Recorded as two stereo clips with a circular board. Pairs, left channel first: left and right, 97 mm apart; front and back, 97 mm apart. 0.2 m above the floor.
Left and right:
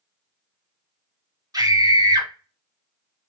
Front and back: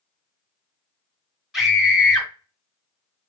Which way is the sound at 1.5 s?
95° right.